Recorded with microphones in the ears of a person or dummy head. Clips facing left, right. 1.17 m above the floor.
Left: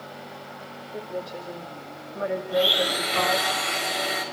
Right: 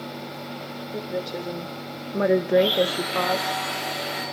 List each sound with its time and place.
0.9 s a woman speaking: 40° right (ahead or behind), 2.5 m; by 3.5 s 15° right (ahead or behind), 1.4 m
2.5 s a blender: 45° left (ahead or behind), 5 m